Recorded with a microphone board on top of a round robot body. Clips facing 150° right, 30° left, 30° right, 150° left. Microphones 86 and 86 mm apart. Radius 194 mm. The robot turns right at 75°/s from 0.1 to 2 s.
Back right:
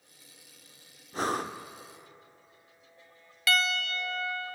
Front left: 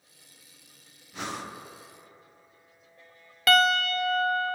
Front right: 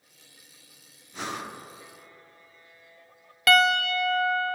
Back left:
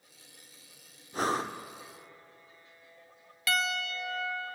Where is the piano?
5° right, 0.6 m.